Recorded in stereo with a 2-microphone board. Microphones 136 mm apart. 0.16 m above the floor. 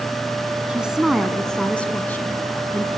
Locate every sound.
0.7 s a woman speaking: 10° right (ahead or behind), 1.3 m; by 2.9 s 20° left (ahead or behind), 2 m